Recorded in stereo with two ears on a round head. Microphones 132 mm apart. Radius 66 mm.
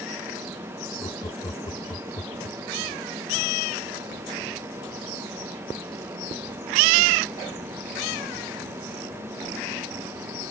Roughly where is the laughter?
Left.